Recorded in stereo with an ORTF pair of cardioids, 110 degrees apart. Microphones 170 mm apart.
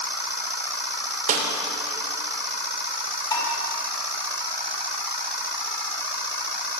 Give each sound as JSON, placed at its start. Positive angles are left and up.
{"t": 1.3, "sound": "a snare drum", "azimuth_deg": -55, "distance_m": 3.0}
{"t": 3.3, "sound": "dishes clattering", "azimuth_deg": 30, "distance_m": 5.5}